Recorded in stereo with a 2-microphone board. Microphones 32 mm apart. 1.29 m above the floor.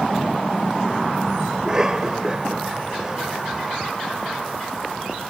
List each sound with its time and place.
1.5 s a cough: 20° right (ahead or behind)